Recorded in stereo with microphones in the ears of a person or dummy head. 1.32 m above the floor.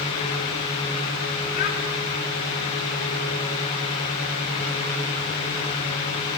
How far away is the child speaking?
About 9 m.